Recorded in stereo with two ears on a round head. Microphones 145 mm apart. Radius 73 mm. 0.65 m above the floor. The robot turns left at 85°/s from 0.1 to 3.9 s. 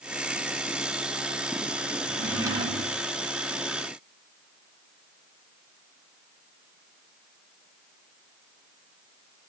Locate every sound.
2.1 s a drawer: 15° left, 0.8 m; by 3.0 s 70° right, 0.8 m